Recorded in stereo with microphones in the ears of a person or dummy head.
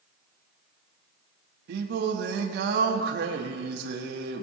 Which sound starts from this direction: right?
Singing, at 1.7 s.